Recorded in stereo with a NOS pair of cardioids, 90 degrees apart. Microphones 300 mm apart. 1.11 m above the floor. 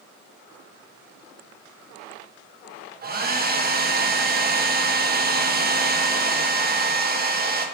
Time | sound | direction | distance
3.0 | a hair dryer | 30° right | 1.1 m